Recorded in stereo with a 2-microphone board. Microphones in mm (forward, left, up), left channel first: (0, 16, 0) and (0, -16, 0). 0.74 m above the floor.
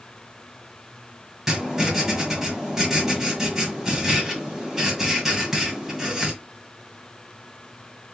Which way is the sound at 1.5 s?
10° right (ahead or behind).